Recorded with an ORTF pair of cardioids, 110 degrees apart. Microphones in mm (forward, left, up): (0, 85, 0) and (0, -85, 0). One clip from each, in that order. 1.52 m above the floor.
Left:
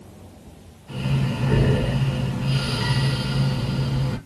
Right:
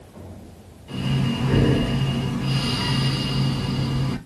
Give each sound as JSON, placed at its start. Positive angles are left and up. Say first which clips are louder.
{"t": 0.9, "sound": "breathing", "louder": "right 2 dB", "azimuth_deg": -20, "distance_m": 3.0}